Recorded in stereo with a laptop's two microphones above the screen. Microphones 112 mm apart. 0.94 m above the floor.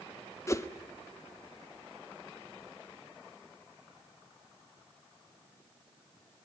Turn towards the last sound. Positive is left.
turn(degrees=25)  # may be behind; listen again after turning